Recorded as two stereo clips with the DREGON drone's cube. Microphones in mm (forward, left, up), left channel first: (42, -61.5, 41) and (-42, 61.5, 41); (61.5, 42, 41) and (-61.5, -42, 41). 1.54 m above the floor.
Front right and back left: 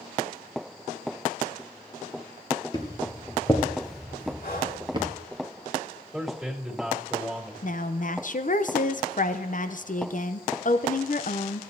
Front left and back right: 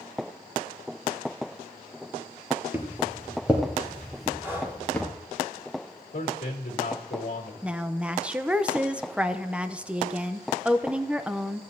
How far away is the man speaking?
About 2 m.